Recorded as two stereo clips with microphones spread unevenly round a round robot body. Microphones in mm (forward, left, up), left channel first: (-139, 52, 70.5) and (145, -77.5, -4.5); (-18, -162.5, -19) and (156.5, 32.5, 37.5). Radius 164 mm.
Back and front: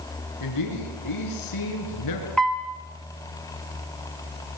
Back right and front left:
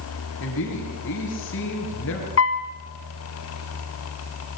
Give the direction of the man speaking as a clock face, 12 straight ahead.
6 o'clock.